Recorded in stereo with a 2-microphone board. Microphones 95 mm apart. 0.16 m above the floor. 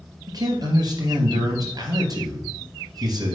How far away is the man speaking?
About 3.5 m.